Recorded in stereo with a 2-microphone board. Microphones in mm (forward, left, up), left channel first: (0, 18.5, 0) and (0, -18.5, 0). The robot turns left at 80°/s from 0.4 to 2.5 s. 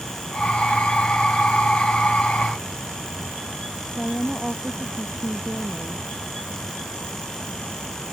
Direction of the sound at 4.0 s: Centre (ahead or behind).